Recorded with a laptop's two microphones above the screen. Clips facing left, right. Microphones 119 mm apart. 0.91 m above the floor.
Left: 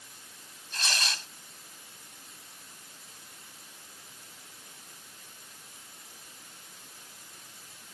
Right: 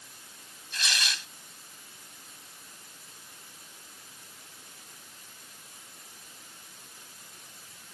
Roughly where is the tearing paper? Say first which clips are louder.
Even; left.